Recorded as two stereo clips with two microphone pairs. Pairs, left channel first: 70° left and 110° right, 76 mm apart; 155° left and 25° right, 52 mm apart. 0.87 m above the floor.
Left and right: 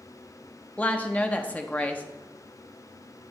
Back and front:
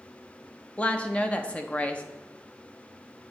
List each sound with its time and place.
0.8 s a woman speaking: 120° left, 0.5 m